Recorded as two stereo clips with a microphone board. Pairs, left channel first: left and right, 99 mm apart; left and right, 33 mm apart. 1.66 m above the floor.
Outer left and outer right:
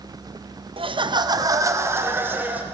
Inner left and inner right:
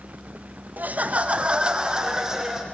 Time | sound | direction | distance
0.8 | laughter | 60° right (ahead or behind) | 0.8 m